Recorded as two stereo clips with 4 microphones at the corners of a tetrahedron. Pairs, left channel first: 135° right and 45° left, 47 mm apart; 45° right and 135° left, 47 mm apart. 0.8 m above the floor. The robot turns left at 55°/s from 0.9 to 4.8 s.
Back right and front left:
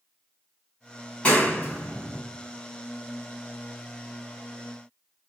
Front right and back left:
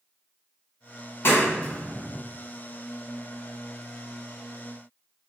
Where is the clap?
75° right, 2 m; by 2.2 s 125° right, 2 m.